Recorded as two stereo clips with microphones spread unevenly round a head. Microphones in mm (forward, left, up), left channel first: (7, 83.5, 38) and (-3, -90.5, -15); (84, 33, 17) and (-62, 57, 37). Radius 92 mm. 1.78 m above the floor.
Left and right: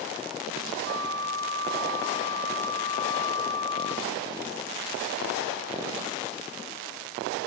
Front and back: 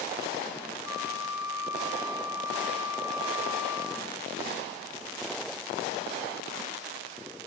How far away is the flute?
About 1.9 m.